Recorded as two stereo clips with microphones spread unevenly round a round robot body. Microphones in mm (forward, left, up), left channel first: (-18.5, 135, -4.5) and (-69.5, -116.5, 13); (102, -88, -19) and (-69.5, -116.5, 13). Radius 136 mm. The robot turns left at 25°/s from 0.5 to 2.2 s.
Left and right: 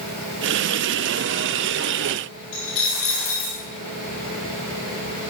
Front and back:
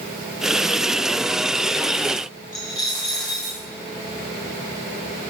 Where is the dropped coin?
125° left, 6 m.